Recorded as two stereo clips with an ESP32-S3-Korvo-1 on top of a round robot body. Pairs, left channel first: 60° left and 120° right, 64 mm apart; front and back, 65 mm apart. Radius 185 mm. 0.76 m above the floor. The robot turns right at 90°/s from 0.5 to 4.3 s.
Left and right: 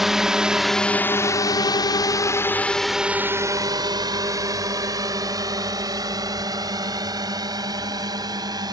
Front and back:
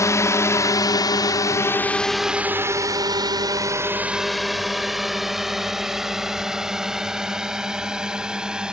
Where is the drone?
35° right; by 8.7 s 100° right.